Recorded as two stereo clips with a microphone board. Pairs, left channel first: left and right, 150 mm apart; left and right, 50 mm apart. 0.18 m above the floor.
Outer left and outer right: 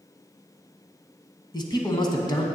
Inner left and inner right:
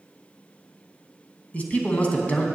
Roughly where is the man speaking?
Left.